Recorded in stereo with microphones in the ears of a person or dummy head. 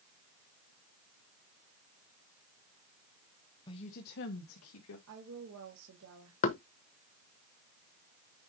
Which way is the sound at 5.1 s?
85° right.